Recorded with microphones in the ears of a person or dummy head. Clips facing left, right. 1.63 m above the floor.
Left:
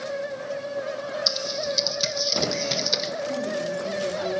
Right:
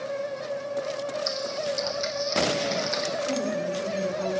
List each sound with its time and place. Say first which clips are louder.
1.3 s typing on a keyboard: even; 50° left (ahead or behind), 0.9 m
3.2 s a woman speaking: left 1 dB; 90° right, 6 m